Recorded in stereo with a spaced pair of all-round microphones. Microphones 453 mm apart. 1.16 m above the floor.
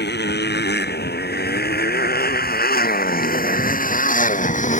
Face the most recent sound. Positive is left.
turn(degrees=15)  # may be behind; listen again after turning